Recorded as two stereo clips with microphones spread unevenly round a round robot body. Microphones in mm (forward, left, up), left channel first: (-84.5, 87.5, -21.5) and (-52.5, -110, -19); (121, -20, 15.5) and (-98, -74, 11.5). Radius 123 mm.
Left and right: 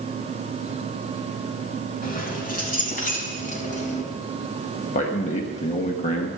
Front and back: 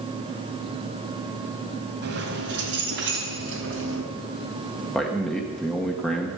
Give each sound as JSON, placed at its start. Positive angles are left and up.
{"t": 2.0, "sound": "keys jangling", "azimuth_deg": 145, "distance_m": 3.5}
{"t": 4.9, "sound": "a man speaking", "azimuth_deg": 100, "distance_m": 1.1}